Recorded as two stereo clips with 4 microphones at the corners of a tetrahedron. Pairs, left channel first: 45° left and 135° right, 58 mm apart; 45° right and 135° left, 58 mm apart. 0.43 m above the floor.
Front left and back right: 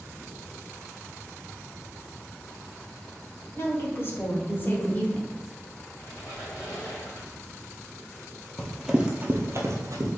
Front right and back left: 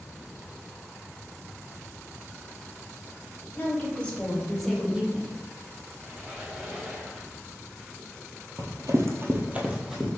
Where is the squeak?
65° left, 1.7 m.